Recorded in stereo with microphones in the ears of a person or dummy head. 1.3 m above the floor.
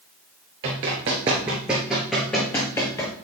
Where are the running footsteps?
20° right (ahead or behind), 1.3 m; by 3.1 s 15° left (ahead or behind), 1.6 m.